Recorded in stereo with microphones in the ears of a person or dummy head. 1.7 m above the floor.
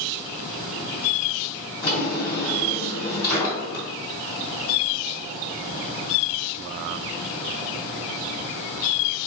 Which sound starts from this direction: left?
A drawer, at 1.8 s.